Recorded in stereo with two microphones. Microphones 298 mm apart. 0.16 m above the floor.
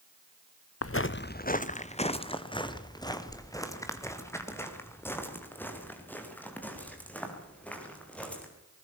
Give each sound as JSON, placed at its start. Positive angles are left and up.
{"t": 0.8, "sound": "footsteps", "side_deg": 55, "distance_m": 0.7}